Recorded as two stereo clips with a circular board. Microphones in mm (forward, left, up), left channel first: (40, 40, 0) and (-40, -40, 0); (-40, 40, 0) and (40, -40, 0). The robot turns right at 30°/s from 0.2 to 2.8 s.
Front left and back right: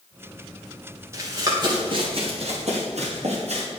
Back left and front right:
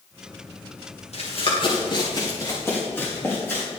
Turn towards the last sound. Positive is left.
turn(degrees=-155)